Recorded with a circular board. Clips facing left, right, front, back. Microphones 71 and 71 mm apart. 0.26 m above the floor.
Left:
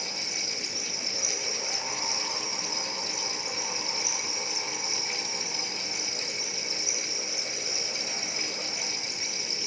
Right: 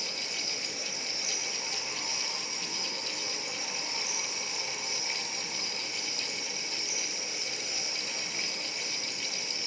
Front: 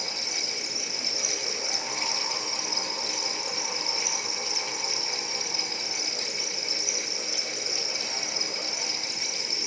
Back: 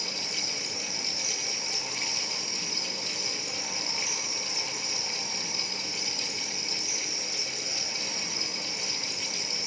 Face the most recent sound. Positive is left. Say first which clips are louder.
# left 2 dB, front 1 dB
turn(degrees=170)